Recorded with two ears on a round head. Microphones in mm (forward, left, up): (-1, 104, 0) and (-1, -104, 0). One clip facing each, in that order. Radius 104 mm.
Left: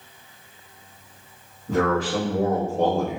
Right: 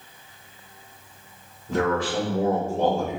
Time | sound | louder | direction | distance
1.7 | a man speaking | left 2 dB | 55° left (ahead or behind) | 1.4 m